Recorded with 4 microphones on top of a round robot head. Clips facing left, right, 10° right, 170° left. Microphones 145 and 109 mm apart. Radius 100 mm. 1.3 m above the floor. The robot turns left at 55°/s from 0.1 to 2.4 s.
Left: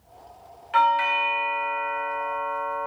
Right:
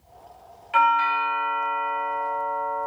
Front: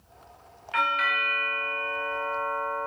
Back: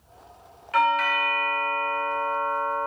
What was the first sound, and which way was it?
A doorbell, 170° right.